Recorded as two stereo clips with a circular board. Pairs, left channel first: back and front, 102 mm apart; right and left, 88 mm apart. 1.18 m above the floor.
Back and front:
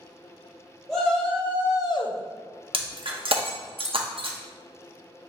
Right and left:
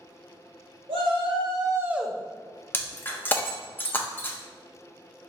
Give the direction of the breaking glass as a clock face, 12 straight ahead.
1 o'clock.